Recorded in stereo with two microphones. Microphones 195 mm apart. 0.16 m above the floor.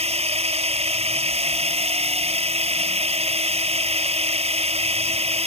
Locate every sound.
0.0 s a drone: 30° right (ahead or behind)